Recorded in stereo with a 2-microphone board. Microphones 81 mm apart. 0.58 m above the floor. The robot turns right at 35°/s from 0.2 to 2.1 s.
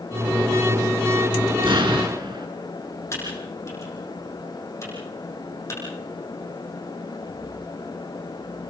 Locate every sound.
1.6 s an explosion: 85° right, 4 m; by 2.5 s 65° right (ahead or behind), 4 m
3.1 s typing on a keyboard: 35° left (ahead or behind), 9 m